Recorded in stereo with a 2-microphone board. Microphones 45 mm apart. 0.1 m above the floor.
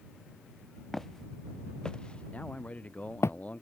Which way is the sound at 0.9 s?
5° left (ahead or behind).